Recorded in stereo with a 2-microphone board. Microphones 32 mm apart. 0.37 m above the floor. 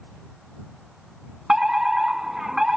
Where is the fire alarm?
15° right (ahead or behind).